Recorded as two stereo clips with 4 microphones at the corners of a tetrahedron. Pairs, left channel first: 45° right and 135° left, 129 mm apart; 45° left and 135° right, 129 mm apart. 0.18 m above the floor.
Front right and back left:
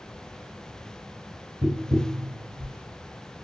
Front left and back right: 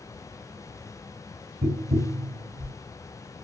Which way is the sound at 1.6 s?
145° right.